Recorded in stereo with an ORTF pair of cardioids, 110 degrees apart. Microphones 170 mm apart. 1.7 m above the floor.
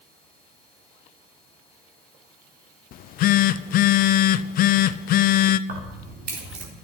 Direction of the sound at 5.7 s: 65° right.